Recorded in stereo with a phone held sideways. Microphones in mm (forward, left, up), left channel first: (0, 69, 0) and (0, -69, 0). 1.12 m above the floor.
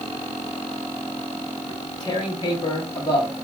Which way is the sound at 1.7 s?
30° left (ahead or behind).